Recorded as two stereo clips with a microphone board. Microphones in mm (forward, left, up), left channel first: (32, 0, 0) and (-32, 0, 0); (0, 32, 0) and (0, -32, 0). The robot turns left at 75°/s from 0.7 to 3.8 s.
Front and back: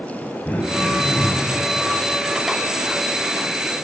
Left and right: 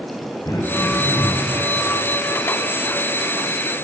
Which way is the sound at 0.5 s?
65° left.